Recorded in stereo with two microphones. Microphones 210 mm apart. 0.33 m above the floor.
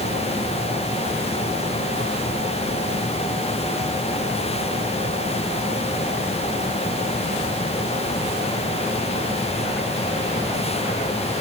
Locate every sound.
Only background noise.